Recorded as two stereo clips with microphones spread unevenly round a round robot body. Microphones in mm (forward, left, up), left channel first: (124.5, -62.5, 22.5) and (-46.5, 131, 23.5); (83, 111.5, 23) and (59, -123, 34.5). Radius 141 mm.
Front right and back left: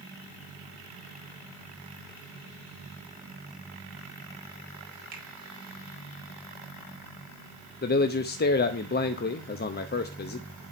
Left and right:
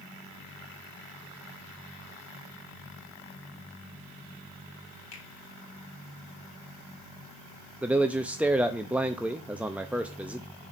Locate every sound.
5.1 s a finger snap: 80° left, 3 m
7.8 s a man speaking: 10° right, 0.6 m